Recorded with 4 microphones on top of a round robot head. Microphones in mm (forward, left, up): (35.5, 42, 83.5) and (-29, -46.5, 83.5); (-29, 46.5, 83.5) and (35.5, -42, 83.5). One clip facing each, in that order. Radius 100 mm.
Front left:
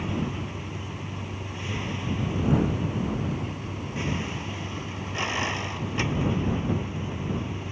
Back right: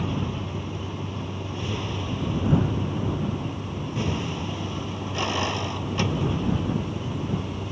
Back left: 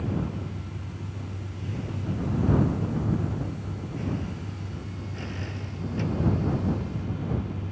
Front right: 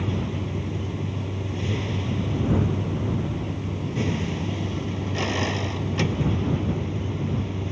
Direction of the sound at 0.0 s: 55° right.